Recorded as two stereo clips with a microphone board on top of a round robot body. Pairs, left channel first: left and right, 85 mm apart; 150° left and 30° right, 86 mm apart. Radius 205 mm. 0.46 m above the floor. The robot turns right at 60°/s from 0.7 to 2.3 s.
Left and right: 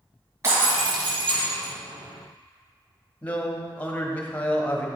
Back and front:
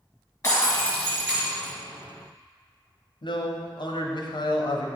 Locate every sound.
0.4 s breaking glass: 155° right, 1.9 m; by 1.7 s 95° right, 1.9 m
3.2 s a man speaking: 160° left, 1.2 m